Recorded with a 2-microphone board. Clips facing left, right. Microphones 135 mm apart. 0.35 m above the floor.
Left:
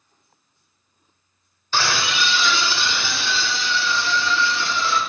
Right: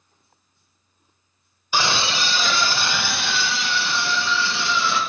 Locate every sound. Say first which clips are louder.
1.7 s a scream: even; 15° right (ahead or behind), 1.1 m; by 5.0 s 75° right (ahead or behind), 4.5 m